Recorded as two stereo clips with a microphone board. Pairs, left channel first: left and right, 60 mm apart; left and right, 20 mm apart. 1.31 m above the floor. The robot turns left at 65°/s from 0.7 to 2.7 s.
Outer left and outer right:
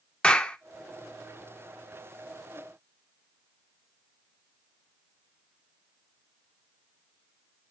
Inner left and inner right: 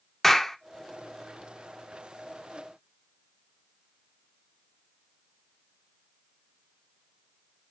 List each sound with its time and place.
0.2 s a clap: 15° left (ahead or behind), 0.7 m